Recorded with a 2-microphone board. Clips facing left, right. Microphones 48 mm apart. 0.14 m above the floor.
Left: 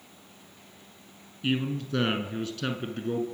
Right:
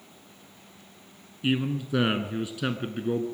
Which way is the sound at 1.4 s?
10° right (ahead or behind).